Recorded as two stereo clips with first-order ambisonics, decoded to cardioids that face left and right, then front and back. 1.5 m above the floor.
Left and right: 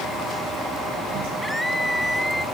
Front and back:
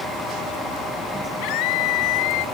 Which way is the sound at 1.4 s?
Straight ahead.